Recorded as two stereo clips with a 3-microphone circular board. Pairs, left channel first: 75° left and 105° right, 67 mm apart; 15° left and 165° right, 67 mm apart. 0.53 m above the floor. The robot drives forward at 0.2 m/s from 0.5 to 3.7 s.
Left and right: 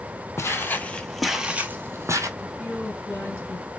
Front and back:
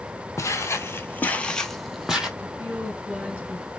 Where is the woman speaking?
125° left, 3 m; by 3.7 s 130° left, 3 m.